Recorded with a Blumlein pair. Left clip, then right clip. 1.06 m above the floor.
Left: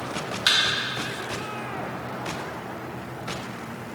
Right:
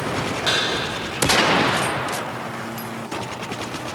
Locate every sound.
0.5 s a thud: 65° left, 1.2 m